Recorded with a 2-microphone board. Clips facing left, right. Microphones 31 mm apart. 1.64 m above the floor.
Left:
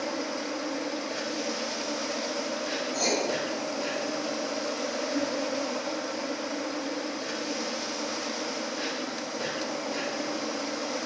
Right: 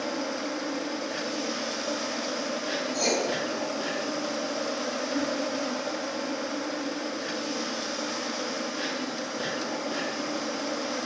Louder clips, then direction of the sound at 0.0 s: Right 1 dB; 45° right (ahead or behind).